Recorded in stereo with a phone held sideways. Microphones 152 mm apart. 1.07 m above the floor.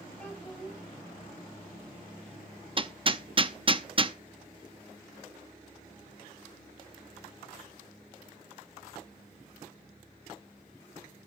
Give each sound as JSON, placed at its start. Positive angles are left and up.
{"t": 0.2, "sound": "a child speaking", "side_deg": 10, "distance_m": 6.0}
{"t": 2.8, "sound": "hammering", "side_deg": -35, "distance_m": 0.6}